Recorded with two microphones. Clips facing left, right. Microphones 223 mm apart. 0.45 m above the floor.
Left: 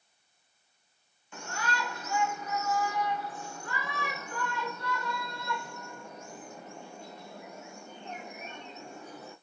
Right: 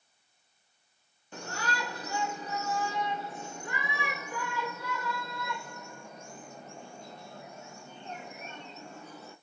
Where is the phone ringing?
No phone ringing in this recording.